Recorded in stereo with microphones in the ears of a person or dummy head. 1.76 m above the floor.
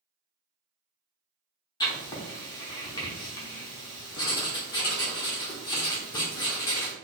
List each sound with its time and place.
1.8 s writing: 20° left (ahead or behind), 0.8 m